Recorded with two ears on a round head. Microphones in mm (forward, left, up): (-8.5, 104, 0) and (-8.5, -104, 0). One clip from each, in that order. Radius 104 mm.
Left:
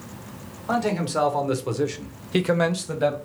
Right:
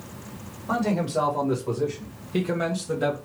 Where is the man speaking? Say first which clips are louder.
Left 1 dB; 75° left (ahead or behind), 1.4 m; by 3.2 s 5° left (ahead or behind), 0.7 m.